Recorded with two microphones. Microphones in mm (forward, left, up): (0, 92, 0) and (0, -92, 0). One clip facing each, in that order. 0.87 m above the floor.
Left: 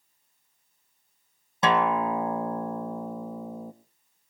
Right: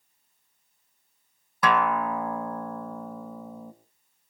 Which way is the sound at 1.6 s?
25° left (ahead or behind).